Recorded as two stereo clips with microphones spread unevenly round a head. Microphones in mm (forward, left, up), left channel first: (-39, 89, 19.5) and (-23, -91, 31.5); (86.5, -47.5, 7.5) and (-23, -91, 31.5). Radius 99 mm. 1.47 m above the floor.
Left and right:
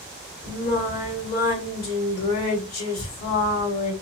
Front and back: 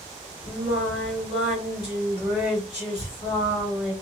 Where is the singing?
120° left, 1.7 m.